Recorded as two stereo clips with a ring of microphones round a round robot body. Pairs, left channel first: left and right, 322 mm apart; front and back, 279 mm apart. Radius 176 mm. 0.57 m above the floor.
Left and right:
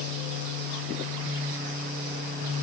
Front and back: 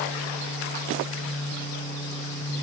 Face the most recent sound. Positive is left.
No sound to turn to.